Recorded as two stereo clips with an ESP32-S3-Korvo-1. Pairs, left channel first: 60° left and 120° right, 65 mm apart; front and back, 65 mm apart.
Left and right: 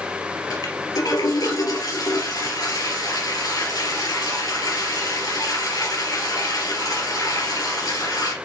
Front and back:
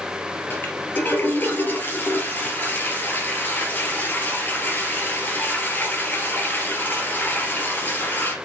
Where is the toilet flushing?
55° left, 2.5 m.